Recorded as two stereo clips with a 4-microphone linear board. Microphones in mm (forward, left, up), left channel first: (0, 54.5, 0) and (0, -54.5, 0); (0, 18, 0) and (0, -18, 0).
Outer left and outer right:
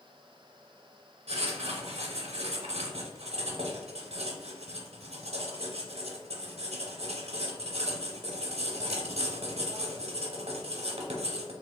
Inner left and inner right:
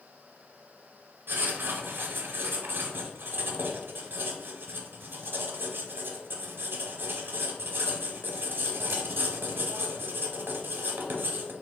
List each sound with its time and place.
1.3 s writing: 75° right (ahead or behind), 0.8 m